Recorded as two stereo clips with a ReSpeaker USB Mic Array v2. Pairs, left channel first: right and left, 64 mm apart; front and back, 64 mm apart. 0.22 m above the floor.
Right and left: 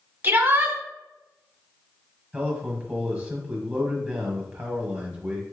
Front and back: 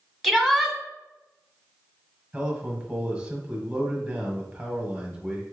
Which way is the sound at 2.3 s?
140° left.